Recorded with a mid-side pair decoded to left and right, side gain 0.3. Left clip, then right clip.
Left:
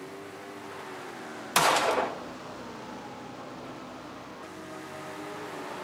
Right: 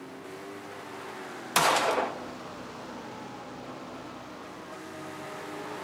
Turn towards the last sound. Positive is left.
turn(degrees=10)